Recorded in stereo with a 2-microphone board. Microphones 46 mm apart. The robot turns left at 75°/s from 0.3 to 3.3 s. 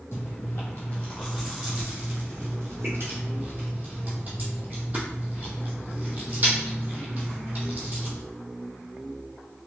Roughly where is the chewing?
Left.